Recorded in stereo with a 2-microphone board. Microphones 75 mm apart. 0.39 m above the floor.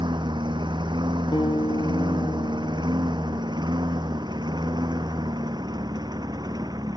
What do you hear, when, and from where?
0.0 s a lawn mower: 85° right; by 7.0 s 60° right (ahead or behind)
1.3 s a guitar: 85° left